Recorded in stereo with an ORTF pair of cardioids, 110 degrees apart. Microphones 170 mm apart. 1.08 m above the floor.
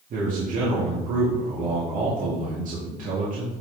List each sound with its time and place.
0.1 s a man speaking: 55° right, 2.5 m